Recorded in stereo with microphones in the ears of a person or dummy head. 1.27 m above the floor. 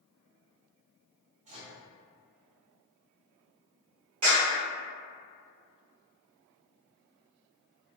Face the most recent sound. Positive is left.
turn(degrees=-80)